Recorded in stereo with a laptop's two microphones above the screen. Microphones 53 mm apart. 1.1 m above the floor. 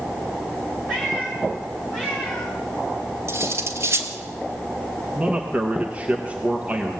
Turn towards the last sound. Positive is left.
turn(degrees=-20)  # may be behind; listen again after turning